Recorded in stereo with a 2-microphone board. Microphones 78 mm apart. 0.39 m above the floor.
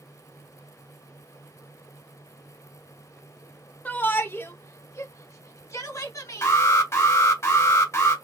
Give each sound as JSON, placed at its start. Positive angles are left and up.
{"t": 3.9, "sound": "a shout", "side_deg": 20, "distance_m": 0.9}
{"t": 6.4, "sound": "an alarm", "side_deg": 35, "distance_m": 2.5}